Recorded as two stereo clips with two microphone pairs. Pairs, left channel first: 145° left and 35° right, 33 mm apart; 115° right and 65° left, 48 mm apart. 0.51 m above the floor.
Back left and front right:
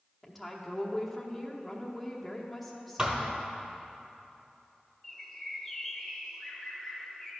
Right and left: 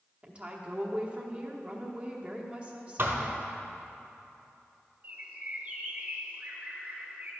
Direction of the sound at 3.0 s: 30° left.